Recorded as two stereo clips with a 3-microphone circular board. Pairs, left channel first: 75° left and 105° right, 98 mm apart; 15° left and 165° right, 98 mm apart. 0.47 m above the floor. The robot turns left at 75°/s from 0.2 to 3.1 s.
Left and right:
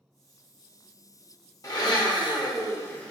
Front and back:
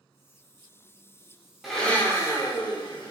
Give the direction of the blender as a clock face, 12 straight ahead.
8 o'clock.